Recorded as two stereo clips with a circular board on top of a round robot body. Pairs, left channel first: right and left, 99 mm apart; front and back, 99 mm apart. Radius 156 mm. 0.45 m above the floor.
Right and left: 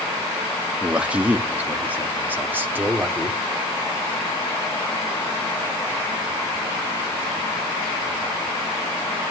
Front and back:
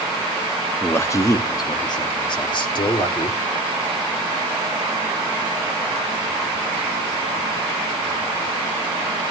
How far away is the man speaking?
About 1.1 m.